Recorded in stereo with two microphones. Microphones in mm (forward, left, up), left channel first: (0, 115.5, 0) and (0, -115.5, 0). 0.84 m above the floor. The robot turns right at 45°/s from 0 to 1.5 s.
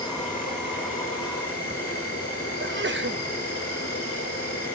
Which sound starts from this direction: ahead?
An insect, at 0.0 s.